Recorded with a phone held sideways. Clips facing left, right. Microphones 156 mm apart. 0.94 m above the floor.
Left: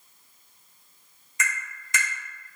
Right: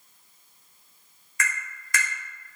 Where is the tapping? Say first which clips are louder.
Right 1 dB; 25° left (ahead or behind), 1.0 m.